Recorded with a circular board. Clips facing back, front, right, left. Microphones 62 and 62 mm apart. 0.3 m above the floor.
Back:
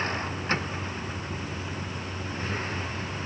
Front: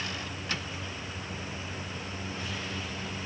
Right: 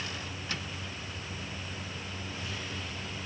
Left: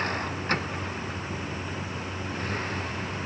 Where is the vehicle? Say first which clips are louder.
Back 7 dB, left 10 dB; 130° left.